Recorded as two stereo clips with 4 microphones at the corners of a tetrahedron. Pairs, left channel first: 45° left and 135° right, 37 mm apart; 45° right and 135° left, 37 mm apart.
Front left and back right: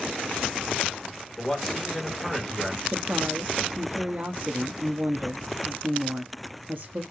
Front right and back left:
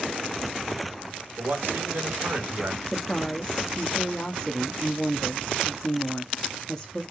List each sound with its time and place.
1.4 s a man speaking: 125° left, 2.0 m
2.9 s a woman speaking: 115° right, 0.9 m